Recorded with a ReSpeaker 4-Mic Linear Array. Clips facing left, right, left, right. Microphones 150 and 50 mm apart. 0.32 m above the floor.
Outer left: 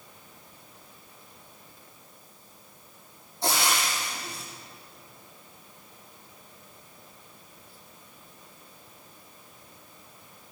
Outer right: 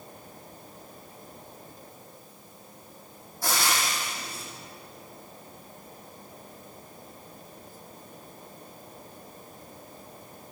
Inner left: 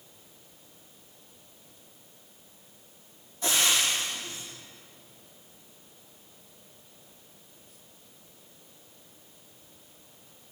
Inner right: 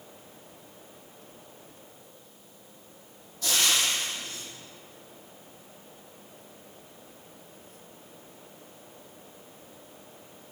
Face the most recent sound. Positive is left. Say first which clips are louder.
# outer left 1 dB, even
turn(degrees=25)  # may be behind; listen again after turning